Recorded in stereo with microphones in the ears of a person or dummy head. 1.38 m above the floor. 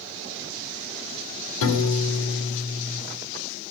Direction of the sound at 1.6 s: 80° left.